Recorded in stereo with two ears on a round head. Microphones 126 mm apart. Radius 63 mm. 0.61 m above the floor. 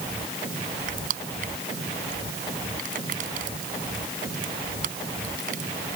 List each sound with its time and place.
0.9 s crushing: 60° right (ahead or behind)